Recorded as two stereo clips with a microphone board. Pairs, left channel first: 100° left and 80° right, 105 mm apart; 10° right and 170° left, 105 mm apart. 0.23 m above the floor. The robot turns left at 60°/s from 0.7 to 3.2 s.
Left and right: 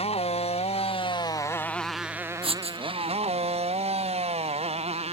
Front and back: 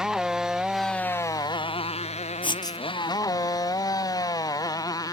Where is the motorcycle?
85° left; by 5.1 s 65° right.